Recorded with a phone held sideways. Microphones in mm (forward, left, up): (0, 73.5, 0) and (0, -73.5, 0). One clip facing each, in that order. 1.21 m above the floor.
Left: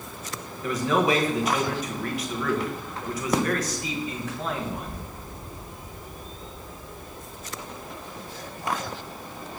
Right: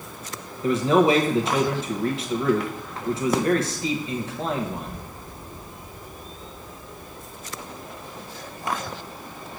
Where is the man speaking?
25° right (ahead or behind), 1.0 m.